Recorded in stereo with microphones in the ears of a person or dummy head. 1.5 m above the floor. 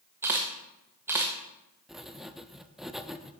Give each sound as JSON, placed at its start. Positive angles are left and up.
{"t": 0.2, "sound": "a camera shutter", "side_deg": -15, "distance_m": 0.7}
{"t": 1.9, "sound": "writing", "side_deg": 0, "distance_m": 0.5}